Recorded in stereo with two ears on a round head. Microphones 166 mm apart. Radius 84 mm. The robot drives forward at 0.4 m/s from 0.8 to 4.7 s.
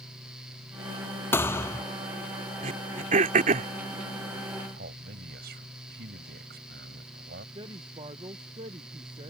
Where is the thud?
10° left (ahead or behind); by 1.9 s 15° left (ahead or behind).